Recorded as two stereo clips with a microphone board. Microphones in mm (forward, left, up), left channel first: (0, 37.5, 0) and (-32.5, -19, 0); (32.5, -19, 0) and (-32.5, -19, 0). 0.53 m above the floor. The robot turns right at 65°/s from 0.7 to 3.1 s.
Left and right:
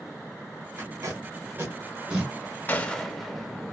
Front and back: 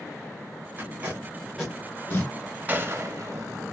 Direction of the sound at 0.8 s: 140° right.